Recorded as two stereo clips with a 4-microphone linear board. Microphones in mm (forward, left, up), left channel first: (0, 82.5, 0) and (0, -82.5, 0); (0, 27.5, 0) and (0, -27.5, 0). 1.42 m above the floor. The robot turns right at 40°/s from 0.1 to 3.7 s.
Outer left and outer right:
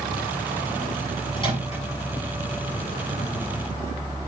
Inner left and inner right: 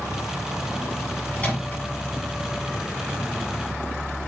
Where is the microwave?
25° left (ahead or behind), 9 m; by 1.8 s 40° left (ahead or behind), 9 m.